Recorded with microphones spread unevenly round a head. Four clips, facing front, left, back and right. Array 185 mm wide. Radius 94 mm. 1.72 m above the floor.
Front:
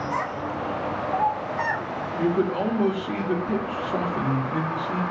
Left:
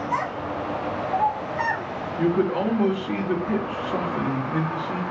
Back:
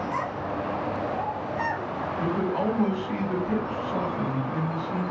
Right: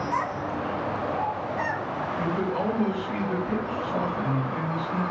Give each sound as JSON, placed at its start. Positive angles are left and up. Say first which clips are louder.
{"t": 0.1, "sound": "a child speaking", "louder": "left 3 dB, front 1 dB", "azimuth_deg": 75, "distance_m": 1.5}
{"t": 2.2, "sound": "a man speaking", "louder": "left 7 dB, front 4 dB", "azimuth_deg": 55, "distance_m": 0.9}